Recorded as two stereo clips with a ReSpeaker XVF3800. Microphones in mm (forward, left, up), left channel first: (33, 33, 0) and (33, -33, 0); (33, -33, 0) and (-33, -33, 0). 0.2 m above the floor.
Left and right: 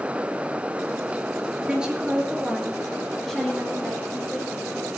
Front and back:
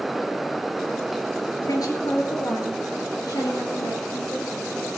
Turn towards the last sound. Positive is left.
turn(degrees=10)